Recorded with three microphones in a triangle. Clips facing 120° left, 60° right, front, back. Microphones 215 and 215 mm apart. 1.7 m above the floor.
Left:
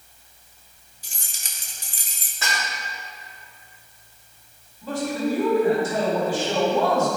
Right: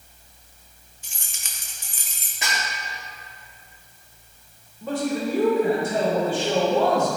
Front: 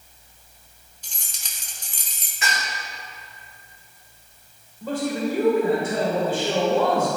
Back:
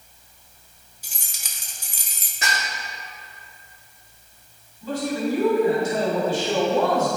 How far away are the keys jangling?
About 1.0 m.